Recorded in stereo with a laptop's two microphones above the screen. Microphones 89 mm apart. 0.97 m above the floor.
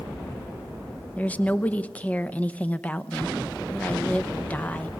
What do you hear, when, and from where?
1.2 s a woman speaking: 15° left (ahead or behind), 0.8 m